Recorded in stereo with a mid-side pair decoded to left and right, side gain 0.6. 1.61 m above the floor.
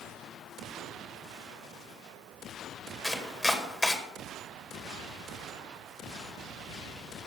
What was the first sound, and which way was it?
Chopping, 10° left.